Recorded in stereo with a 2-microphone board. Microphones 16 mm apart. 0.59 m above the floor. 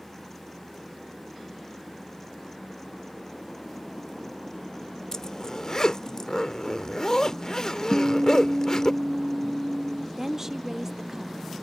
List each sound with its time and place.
5.1 s a zipper: 35° left (ahead or behind)
7.9 s a guitar: 65° right (ahead or behind)
10.2 s a woman speaking: 25° right (ahead or behind)